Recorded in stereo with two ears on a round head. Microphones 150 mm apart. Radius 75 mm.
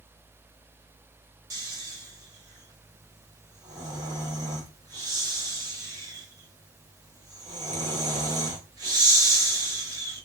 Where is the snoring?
25° right (ahead or behind), 1.3 m.